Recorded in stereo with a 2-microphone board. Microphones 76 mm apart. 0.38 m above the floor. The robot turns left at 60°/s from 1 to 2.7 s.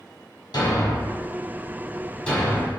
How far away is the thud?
About 1.4 m.